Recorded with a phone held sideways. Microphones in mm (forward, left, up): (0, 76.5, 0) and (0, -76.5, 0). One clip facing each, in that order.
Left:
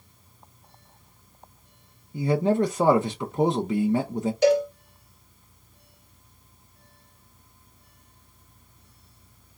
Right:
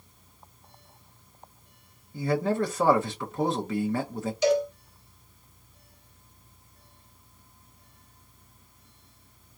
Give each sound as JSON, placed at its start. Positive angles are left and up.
{"t": 2.1, "sound": "a man speaking", "side_deg": 20, "distance_m": 0.5}
{"t": 4.4, "sound": "a cowbell", "side_deg": 50, "distance_m": 1.9}